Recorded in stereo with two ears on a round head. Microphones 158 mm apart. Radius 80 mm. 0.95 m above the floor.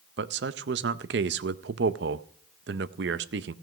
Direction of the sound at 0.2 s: 65° right (ahead or behind).